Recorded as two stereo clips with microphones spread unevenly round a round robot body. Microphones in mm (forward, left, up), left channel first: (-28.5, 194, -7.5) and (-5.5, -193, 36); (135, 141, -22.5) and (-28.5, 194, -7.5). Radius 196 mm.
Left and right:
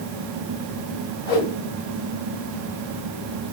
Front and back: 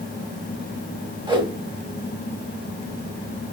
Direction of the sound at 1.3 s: 95° left.